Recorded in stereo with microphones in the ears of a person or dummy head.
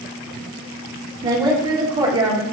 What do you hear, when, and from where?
1.2 s a woman speaking: 20° right (ahead or behind), 1.0 m